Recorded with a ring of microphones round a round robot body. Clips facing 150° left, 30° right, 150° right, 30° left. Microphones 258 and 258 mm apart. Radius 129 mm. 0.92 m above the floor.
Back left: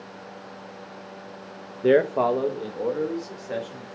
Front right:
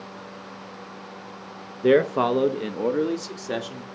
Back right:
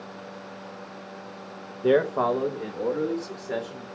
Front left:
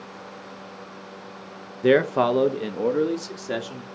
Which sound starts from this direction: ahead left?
A man speaking, at 1.8 s.